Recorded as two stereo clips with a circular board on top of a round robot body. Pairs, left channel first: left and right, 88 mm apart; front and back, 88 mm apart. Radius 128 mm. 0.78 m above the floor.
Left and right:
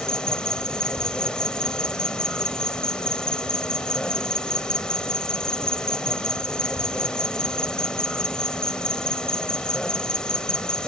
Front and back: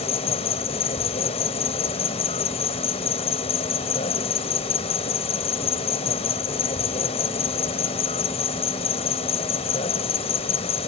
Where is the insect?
10° left.